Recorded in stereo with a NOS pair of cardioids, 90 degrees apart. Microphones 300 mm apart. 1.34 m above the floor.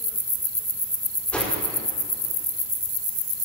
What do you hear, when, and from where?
1.3 s a whoosh: 5° left, 4.5 m